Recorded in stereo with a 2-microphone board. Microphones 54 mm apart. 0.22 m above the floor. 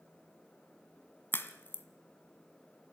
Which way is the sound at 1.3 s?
35° left (ahead or behind).